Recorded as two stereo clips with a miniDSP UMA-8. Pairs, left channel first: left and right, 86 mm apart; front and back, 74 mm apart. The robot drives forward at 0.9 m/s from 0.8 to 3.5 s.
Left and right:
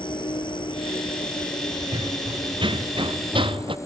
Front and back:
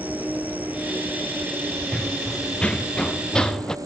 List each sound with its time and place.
0.0 s an insect: 110° left; by 3.9 s 140° left
1.9 s running footsteps: 75° right; by 3.8 s 80° right